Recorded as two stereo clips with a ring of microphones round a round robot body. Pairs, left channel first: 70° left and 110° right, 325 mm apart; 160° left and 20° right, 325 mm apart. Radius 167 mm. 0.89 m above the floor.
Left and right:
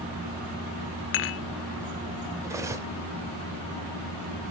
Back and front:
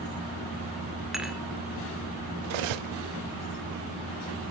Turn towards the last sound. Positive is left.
turn(degrees=-30)